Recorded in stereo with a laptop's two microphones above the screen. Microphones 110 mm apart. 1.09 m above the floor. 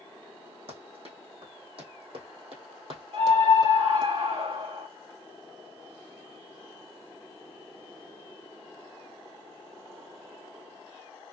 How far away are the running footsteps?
About 3 m.